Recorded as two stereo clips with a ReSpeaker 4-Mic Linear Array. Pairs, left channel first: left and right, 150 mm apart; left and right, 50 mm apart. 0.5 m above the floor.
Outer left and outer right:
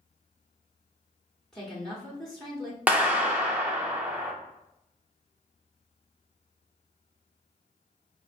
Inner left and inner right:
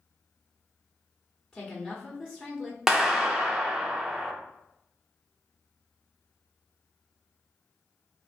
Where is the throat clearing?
No throat clearing in this recording.